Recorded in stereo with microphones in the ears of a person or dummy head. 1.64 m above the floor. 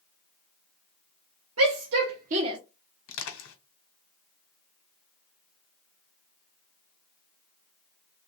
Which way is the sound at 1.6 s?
80° right.